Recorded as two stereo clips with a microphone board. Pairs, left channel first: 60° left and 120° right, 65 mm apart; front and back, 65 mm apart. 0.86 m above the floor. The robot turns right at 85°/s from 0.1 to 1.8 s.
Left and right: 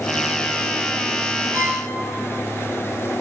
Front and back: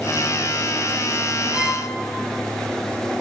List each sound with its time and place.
1.5 s a violin: 120° right, 1.2 m; by 1.8 s 95° right, 1.2 m